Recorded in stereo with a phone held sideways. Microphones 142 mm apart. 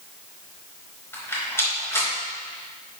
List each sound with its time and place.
1.1 s a rattle: 20° left (ahead or behind), 3 m